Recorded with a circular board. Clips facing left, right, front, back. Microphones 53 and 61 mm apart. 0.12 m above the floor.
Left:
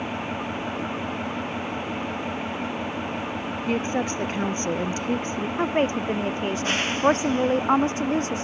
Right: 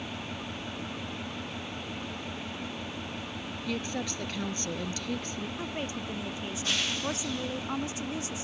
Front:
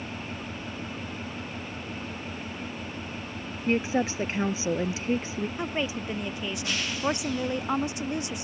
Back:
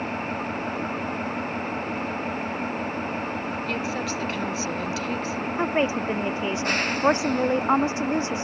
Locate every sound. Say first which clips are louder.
0.0 s an engine running: left 9 dB, back 8 dB; 140° left
3.7 s a woman speaking: left 9 dB, front 7 dB; 55° left
5.6 s a woman speaking: left 17 dB, back 11 dB; 125° left